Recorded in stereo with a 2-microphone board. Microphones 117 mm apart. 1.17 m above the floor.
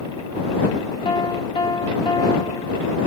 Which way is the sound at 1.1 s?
45° left (ahead or behind).